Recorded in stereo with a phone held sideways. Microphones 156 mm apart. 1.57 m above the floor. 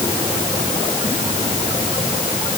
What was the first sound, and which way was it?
Only background noise.